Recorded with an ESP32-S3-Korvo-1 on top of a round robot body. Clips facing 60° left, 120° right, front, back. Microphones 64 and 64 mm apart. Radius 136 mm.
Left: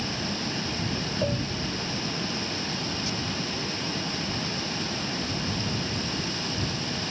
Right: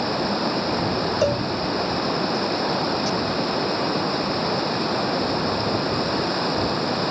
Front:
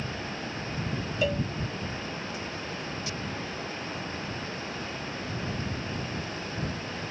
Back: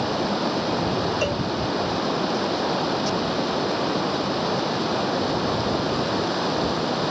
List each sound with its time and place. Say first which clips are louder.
0.0 s running water: right 9 dB, back 12 dB; 160° right
1.2 s a cowbell: right 7 dB, back 4 dB; 95° right